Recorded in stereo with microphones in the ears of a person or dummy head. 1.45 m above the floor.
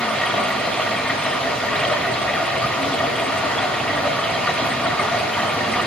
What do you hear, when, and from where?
0.0 s running water: centre (ahead or behind), 1.7 m